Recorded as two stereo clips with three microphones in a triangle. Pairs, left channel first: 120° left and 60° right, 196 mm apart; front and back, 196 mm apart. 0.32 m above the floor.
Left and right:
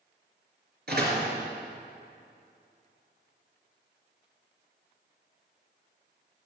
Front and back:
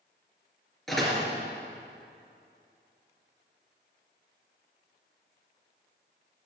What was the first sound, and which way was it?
A door slam, 90° right.